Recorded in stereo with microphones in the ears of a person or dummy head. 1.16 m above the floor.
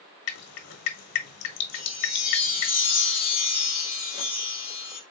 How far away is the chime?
About 1.7 m.